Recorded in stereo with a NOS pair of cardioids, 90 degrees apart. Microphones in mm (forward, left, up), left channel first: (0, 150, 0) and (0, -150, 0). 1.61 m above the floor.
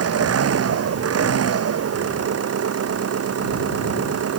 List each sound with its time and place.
0.0 s an engine running: 50° right